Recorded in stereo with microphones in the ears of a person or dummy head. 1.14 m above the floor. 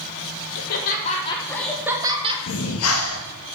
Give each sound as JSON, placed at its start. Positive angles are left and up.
{"t": 0.6, "sound": "laughter", "side_deg": 55, "distance_m": 1.4}
{"t": 2.5, "sound": "breathing", "side_deg": 75, "distance_m": 1.7}